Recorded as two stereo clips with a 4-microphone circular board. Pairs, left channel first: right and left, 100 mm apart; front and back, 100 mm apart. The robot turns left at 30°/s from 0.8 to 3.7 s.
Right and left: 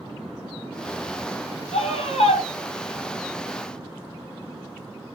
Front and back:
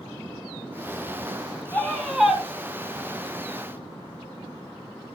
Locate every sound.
1.7 s a scream: 75° right, 7 m; by 2.4 s 95° right, 7 m